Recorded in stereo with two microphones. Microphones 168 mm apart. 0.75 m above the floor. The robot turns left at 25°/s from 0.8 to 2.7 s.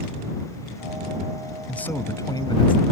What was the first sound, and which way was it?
A man speaking, 5° left (ahead or behind).